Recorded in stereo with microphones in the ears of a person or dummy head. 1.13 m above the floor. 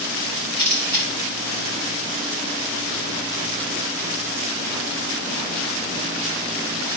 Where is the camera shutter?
50° right (ahead or behind), 2.5 m.